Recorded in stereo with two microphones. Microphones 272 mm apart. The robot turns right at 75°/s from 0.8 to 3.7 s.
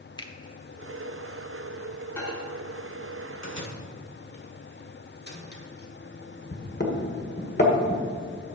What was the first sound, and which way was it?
A finger snap, 15° left (ahead or behind).